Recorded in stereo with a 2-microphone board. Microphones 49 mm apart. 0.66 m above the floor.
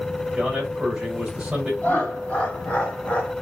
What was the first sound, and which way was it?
A man speaking, 10° right (ahead or behind).